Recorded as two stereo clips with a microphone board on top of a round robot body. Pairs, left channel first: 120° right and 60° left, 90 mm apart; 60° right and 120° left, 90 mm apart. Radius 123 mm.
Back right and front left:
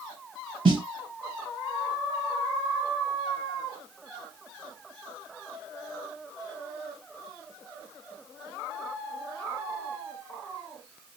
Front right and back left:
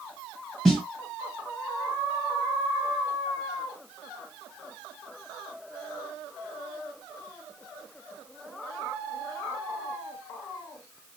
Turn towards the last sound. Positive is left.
turn(degrees=30)